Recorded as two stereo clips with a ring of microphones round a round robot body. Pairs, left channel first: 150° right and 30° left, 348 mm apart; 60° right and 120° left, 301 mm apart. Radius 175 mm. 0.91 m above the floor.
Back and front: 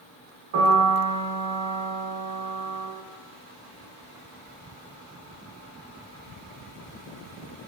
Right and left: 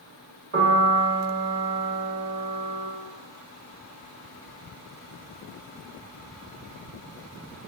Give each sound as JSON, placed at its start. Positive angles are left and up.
{"t": 0.5, "sound": "a piano", "azimuth_deg": 70, "distance_m": 1.5}